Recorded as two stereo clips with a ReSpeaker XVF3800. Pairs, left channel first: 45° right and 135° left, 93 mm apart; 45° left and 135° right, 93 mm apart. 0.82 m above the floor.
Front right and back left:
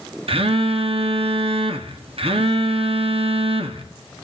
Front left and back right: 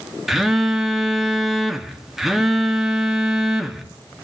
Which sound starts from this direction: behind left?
A phone buzzing, at 0.3 s.